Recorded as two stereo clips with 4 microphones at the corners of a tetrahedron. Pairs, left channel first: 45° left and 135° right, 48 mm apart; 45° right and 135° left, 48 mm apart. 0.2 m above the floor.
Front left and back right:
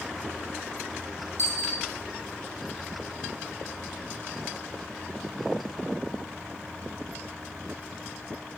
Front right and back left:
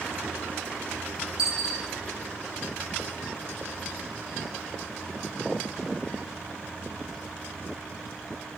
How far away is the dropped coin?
About 1.2 m.